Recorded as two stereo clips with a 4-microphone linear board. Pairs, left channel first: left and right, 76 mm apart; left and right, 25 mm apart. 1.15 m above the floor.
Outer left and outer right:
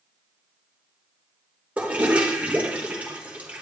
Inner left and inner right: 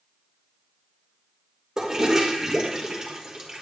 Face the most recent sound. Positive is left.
turn(degrees=-15)  # may be behind; listen again after turning